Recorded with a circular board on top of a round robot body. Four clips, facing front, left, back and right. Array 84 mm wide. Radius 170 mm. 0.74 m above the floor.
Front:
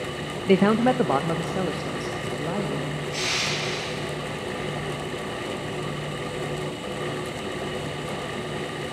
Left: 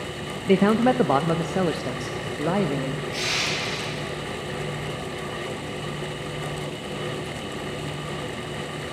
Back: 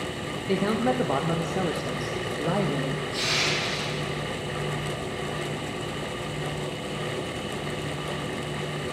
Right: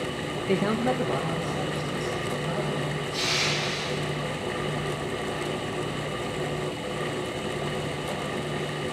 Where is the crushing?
50° left, 9 m.